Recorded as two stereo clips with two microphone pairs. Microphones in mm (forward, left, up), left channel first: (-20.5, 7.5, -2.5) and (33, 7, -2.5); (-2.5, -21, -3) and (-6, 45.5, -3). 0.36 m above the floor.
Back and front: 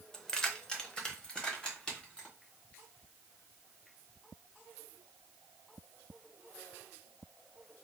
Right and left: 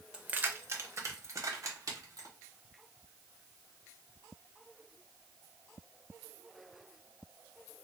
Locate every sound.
0.1 s keys jangling: 120° left, 0.5 m; by 2.3 s 105° left, 1.6 m